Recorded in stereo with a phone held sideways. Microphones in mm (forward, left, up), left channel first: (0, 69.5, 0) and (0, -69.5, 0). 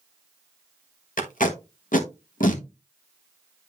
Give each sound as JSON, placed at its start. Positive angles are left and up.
{"t": 1.2, "sound": "tape being pulled", "side_deg": 85, "distance_m": 1.2}